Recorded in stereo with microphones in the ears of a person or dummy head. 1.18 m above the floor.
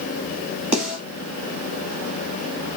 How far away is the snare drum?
About 2.5 m.